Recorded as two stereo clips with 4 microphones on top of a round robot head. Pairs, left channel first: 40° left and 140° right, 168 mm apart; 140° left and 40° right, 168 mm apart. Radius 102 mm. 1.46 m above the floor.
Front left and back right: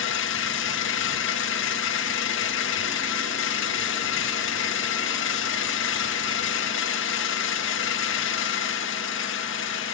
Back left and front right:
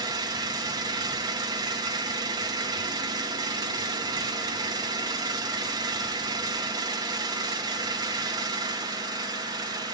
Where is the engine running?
25° left, 1.4 m.